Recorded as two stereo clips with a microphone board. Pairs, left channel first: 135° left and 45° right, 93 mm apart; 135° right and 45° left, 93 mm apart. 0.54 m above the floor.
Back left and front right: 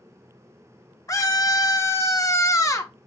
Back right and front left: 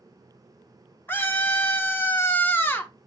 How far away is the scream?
About 0.8 m.